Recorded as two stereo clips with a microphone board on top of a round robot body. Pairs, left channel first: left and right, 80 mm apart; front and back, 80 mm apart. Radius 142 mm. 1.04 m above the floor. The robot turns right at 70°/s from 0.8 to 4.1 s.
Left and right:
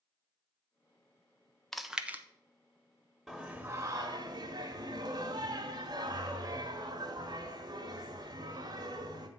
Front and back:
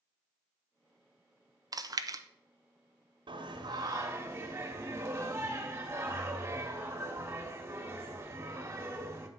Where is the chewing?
175° left, 0.8 m; by 2.2 s 150° right, 0.8 m.